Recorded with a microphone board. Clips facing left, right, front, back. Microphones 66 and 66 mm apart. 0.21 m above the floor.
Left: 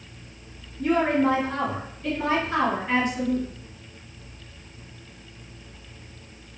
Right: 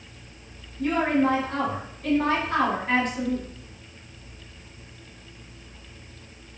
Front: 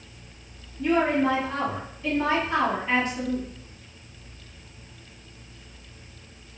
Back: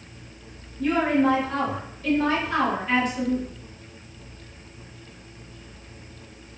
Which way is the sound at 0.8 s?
65° right.